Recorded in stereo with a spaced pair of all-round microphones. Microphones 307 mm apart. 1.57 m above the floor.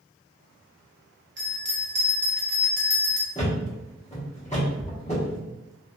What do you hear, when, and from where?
1.4 s a bell: 40° right (ahead or behind), 0.7 m
3.4 s a thud: 20° left (ahead or behind), 1.1 m